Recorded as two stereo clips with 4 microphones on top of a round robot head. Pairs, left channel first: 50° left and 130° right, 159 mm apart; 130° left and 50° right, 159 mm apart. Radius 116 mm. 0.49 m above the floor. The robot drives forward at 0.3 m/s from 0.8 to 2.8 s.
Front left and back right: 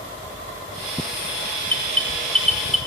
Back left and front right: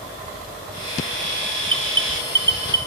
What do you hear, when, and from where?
1.7 s an alarm: 20° right, 1.1 m; by 2.9 s 40° right, 0.9 m